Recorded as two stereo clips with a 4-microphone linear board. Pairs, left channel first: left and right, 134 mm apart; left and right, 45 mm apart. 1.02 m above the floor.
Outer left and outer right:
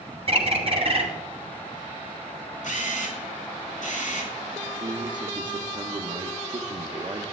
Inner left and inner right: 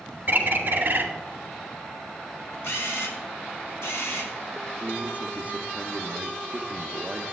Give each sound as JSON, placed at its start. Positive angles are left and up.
{"t": 0.3, "sound": "a bird", "side_deg": -45, "distance_m": 1.8}
{"t": 2.6, "sound": "a camera shutter", "side_deg": 65, "distance_m": 1.9}
{"t": 4.7, "sound": "a man speaking", "side_deg": -35, "distance_m": 0.6}